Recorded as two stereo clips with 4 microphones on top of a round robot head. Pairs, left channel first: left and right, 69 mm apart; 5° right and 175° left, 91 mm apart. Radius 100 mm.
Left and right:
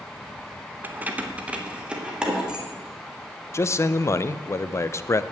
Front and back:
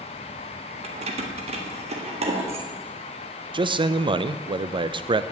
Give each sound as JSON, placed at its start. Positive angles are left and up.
{"t": 0.8, "sound": "keys jangling", "azimuth_deg": -155, "distance_m": 0.7}
{"t": 3.5, "sound": "a man speaking", "azimuth_deg": 145, "distance_m": 0.6}